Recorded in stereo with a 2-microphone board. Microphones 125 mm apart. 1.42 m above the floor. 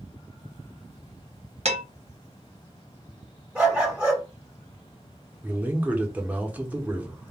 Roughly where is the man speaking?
Centre.